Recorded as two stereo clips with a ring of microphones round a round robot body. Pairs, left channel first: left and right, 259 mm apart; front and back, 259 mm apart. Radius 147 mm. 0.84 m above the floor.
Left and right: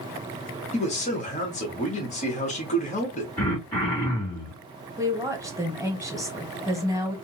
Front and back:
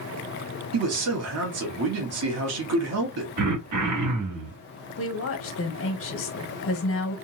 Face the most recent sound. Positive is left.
turn(degrees=-15)